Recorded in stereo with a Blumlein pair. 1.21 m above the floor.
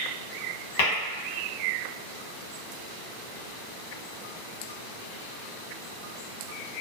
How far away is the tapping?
About 0.9 m.